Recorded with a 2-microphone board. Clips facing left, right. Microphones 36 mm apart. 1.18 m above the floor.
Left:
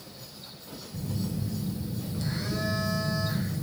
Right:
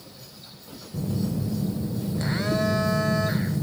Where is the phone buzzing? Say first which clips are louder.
Right 6 dB; 55° right (ahead or behind), 0.5 m.